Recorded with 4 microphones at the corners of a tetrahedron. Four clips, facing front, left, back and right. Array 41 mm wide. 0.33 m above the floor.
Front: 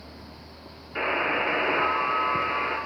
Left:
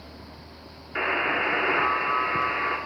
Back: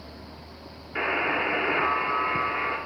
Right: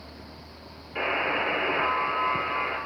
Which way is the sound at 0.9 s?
95° left.